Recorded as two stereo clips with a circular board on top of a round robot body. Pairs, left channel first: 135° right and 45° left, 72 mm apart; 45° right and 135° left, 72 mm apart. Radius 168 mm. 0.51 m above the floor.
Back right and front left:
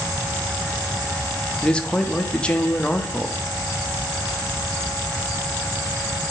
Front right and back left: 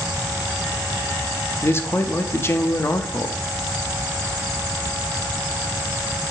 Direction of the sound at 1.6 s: 70° right.